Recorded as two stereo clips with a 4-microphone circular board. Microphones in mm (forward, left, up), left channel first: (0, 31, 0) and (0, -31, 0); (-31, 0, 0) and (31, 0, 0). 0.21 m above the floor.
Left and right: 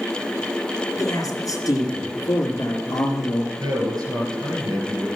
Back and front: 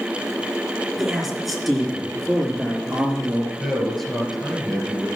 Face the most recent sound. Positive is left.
turn(degrees=-95)